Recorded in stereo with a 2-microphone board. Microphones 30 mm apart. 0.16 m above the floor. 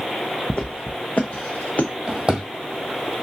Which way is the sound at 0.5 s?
40° left (ahead or behind).